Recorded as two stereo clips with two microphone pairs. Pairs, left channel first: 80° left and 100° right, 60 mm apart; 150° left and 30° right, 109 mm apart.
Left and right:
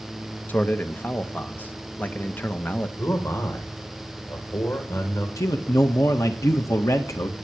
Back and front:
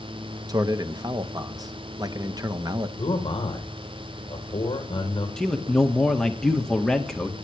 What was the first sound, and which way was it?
A man speaking, 25° left.